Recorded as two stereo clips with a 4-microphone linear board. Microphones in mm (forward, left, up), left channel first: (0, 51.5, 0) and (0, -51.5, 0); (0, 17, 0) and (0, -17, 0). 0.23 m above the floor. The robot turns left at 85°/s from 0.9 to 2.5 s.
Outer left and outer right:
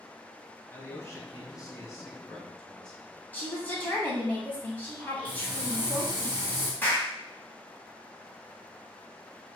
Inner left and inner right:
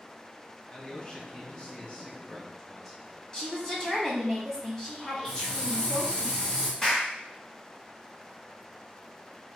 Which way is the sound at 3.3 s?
15° left (ahead or behind).